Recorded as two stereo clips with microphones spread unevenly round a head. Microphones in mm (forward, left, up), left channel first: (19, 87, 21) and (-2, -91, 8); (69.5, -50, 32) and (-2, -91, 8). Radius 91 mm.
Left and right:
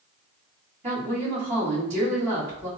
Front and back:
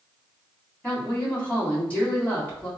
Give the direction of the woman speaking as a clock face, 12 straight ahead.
1 o'clock.